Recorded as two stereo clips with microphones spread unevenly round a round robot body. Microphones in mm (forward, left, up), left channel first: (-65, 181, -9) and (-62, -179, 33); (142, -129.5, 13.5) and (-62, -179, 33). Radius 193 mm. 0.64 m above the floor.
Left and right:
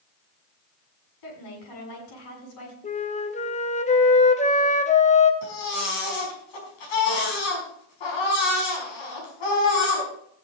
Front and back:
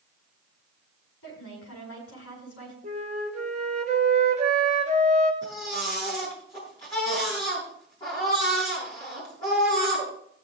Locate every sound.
1.2 s a woman speaking: 55° left, 6 m
2.8 s a flute: 145° left, 1.1 m
5.4 s a baby crying: 95° left, 4.5 m